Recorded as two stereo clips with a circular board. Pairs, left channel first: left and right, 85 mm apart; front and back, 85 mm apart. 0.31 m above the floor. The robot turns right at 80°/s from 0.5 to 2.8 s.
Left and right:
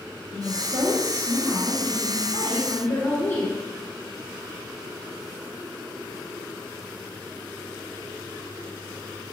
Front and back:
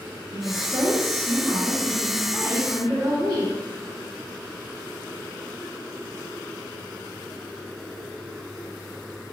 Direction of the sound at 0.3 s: 30° right.